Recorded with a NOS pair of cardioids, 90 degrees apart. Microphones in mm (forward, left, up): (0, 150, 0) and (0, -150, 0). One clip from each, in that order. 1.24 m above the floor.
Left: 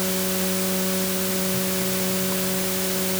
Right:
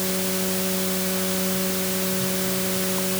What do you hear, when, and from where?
Only background noise.